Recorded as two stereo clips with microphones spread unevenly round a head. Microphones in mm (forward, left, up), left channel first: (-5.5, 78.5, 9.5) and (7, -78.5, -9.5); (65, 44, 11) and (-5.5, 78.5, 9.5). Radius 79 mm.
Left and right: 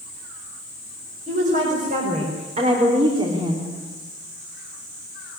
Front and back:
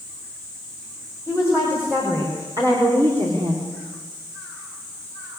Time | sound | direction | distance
1.3 | a woman speaking | 130° right | 6 m